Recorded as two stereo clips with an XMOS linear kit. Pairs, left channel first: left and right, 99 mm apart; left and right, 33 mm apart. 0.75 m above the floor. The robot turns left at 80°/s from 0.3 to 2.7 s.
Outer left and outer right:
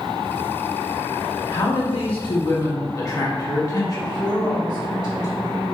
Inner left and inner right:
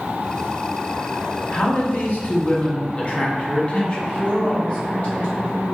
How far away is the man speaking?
About 1.0 m.